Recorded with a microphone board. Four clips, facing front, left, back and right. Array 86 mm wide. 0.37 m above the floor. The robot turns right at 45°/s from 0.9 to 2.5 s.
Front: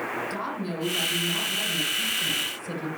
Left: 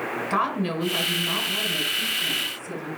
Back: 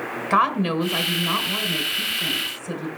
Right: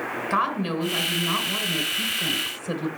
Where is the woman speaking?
175° left, 3 m; by 2.9 s 110° right, 3 m.